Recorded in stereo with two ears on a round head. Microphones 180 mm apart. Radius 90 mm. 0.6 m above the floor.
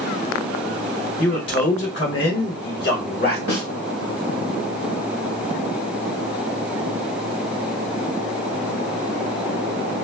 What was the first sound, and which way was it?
A man speaking, 60° left (ahead or behind).